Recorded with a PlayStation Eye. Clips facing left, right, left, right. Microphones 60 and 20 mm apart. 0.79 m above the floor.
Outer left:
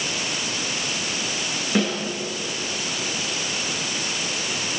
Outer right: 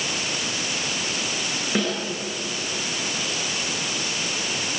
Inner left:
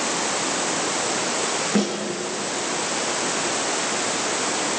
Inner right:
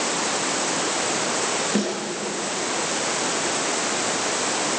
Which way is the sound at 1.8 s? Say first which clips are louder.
Outer left 2 dB, inner left 2 dB; centre (ahead or behind).